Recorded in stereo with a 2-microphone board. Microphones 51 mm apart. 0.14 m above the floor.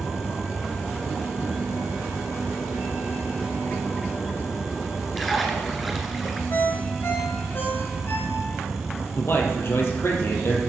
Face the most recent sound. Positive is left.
turn(degrees=55)  # may be behind; listen again after turning